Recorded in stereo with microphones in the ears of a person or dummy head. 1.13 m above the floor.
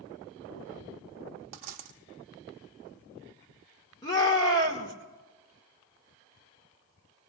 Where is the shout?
20° left (ahead or behind), 1.5 m.